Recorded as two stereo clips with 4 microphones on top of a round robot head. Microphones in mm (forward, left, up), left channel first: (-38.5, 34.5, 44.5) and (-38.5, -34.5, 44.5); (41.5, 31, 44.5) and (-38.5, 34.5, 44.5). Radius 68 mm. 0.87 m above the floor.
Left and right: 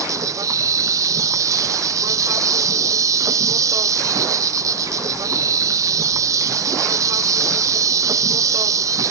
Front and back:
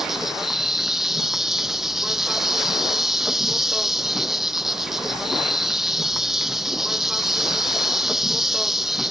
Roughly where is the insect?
Right.